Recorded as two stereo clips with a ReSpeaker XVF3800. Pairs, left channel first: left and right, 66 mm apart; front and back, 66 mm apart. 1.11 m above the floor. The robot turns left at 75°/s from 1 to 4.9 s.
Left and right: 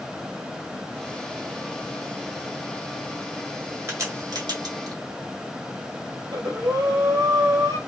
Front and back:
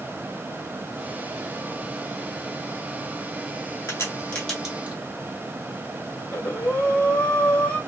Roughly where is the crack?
Ahead right.